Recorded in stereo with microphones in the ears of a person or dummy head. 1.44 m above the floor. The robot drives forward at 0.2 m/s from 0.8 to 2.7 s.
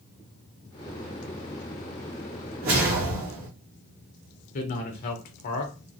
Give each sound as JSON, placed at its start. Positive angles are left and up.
{"t": 2.6, "sound": "a whoosh", "side_deg": -45, "distance_m": 1.2}
{"t": 4.5, "sound": "a man speaking", "side_deg": 45, "distance_m": 1.0}